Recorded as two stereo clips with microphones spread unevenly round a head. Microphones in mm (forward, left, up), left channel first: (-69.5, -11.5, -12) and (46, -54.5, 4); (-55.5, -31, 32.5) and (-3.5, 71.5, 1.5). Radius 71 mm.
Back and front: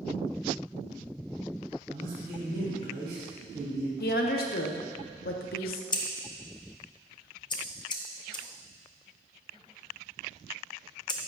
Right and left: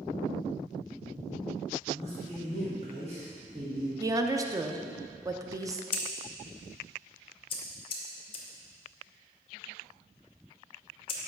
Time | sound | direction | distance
1.9 | a man speaking | 15° left | 2.5 m
4.0 | a woman speaking | 130° left | 0.7 m
5.9 | scissors | 145° right | 0.9 m